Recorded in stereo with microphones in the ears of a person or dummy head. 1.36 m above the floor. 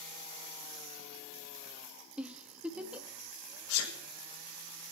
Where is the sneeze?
80° left, 1.6 m.